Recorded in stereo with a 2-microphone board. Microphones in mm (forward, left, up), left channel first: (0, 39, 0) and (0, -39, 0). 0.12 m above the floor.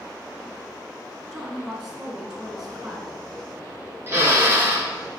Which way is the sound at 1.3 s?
5° right (ahead or behind).